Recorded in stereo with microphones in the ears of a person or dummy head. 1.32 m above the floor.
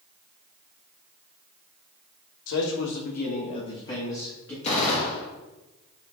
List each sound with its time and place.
2.5 s a man speaking: 80° left, 1.1 m; by 4.5 s 15° left (ahead or behind), 1.8 m
4.6 s a gunshot: 35° left (ahead or behind), 1.0 m